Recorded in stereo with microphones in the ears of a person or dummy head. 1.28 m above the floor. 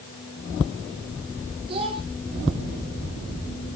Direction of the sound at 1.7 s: 30° right (ahead or behind).